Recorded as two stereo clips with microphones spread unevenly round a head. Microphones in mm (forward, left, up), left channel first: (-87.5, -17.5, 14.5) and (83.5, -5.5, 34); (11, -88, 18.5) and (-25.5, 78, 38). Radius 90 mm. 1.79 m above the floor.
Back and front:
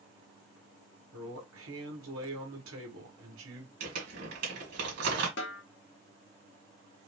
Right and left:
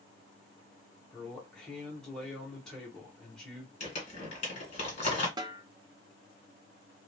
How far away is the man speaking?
About 1.6 m.